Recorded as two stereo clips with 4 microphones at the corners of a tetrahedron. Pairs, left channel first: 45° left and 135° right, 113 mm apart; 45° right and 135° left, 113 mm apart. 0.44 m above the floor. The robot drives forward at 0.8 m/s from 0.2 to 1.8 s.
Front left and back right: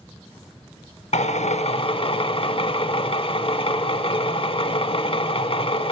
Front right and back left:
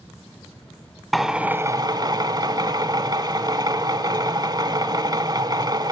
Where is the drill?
45° left, 0.9 m; by 5.9 s 80° left, 0.6 m.